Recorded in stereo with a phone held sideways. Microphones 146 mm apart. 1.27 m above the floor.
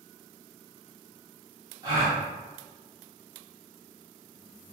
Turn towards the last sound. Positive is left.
turn(degrees=-25)  # may be behind; listen again after turning